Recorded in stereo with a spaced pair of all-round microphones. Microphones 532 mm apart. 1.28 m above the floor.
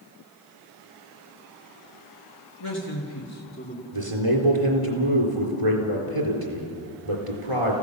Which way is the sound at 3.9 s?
80° right.